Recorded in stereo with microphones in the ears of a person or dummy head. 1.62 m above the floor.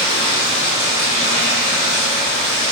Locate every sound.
0.0 s running water: 15° left (ahead or behind), 0.9 m